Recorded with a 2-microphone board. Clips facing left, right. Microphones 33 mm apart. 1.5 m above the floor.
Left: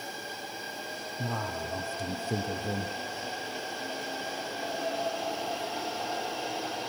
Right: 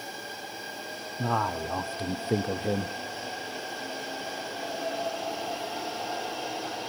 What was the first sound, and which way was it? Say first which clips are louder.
A man speaking: right 7 dB; 35° right (ahead or behind).